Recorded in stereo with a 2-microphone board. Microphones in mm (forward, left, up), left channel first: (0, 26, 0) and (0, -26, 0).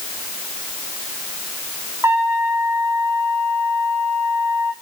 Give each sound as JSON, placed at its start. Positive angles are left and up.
{"t": 2.0, "sound": "a trumpet", "side_deg": -70, "distance_m": 2.5}